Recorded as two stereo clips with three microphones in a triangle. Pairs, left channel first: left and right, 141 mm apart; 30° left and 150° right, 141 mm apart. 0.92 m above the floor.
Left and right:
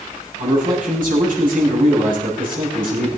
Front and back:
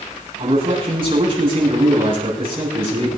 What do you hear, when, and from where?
0.4 s a man speaking: 100° right, 8 m